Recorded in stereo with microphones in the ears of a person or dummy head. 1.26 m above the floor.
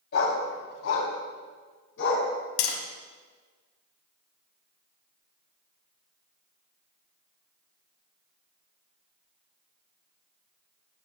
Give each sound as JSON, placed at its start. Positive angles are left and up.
{"t": 0.1, "sound": "a dog barking", "side_deg": 60, "distance_m": 2.0}
{"t": 2.6, "sound": "tapping", "side_deg": 70, "distance_m": 2.0}